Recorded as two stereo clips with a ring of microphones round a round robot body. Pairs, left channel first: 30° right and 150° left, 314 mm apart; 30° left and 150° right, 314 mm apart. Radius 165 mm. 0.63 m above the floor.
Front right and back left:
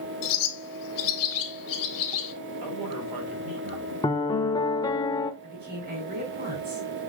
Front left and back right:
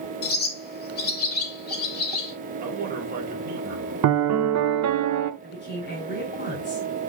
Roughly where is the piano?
Right.